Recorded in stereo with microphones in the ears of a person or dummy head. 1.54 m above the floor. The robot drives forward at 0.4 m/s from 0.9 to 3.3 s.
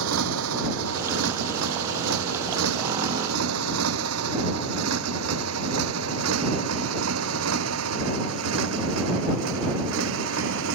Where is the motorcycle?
85° right; by 10.8 s 70° right (ahead or behind).